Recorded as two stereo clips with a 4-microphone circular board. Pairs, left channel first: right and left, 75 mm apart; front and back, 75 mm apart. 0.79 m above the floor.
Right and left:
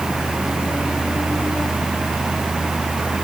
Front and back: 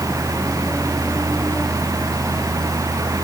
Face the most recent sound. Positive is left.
No sound to turn to.